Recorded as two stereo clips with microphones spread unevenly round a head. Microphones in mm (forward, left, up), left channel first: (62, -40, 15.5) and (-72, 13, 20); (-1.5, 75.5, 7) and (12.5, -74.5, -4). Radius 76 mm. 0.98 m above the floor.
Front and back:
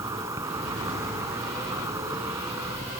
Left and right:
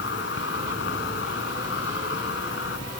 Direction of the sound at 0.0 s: 85° left.